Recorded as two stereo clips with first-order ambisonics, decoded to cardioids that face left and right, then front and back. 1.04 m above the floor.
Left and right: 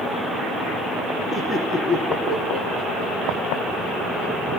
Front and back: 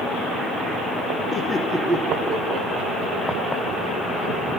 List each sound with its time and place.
1.3 s laughter: 20° left, 0.7 m; by 4.3 s 175° left, 2 m